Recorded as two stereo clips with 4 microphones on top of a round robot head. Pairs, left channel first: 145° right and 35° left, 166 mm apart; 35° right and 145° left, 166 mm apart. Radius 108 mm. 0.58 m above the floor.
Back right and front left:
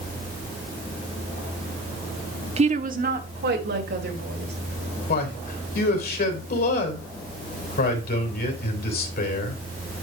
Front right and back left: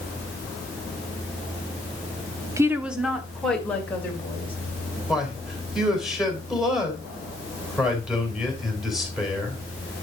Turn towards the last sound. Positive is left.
turn(degrees=-125)